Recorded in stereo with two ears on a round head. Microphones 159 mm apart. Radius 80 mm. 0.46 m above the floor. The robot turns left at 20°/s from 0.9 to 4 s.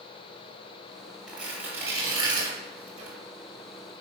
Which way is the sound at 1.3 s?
5° right (ahead or behind).